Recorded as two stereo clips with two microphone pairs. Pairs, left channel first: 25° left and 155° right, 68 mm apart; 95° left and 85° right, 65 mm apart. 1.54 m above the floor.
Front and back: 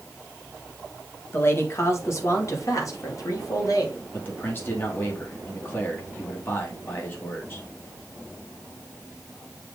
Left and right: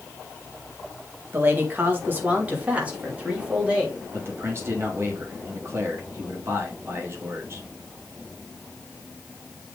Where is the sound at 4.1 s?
35° right, 2.5 m.